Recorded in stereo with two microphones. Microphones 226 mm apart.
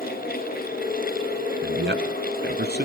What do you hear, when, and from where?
1.6 s a man speaking: 55° right (ahead or behind), 2.5 m; by 2.9 s 45° right (ahead or behind), 1.7 m